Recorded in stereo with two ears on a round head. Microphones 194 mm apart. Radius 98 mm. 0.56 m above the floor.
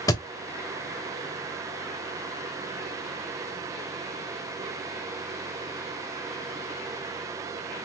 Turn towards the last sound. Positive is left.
turn(degrees=15)  # may be behind; listen again after turning